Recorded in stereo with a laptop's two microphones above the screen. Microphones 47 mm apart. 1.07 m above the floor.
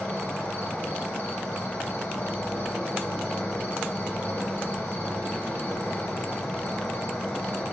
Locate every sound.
0.0 s an insect: 40° left (ahead or behind), 1.4 m